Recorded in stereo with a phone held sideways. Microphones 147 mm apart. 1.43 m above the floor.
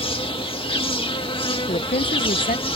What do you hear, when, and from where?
0.0 s an insect: 35° left (ahead or behind)
1.7 s a woman speaking: 65° left (ahead or behind)